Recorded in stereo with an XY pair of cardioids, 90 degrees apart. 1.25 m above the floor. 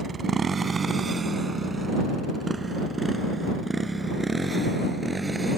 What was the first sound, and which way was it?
A motorcycle, 45° right.